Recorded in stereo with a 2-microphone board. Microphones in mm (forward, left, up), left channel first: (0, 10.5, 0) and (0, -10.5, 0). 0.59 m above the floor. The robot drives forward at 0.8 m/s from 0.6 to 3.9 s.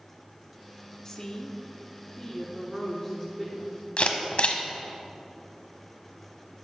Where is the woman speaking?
25° left (ahead or behind), 1.0 m; by 3.8 s 15° left (ahead or behind), 2.0 m.